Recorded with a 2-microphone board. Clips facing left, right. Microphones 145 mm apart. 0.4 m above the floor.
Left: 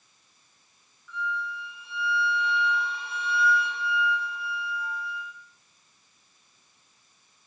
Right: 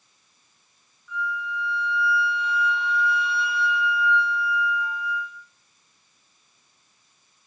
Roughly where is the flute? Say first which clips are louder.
Right 3 dB; centre.